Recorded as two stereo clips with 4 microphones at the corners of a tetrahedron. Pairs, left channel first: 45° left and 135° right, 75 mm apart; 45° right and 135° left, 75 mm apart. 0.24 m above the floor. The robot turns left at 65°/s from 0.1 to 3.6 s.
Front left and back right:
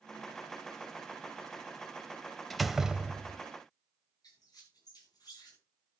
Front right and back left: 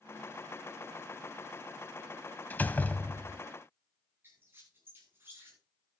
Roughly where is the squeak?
Left.